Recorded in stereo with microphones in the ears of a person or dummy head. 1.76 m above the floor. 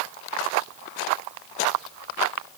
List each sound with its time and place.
Only background noise.